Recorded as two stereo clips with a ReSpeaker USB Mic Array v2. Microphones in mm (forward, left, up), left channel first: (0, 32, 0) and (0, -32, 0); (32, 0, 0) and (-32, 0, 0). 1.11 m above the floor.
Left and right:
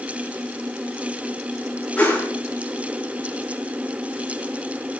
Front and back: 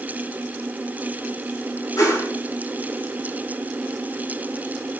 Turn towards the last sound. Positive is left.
turn(degrees=20)